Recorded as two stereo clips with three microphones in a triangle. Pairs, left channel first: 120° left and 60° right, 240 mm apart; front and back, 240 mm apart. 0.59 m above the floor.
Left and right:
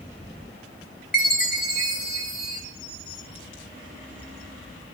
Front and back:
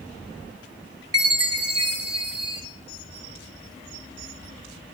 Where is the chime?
170° left, 1.2 m.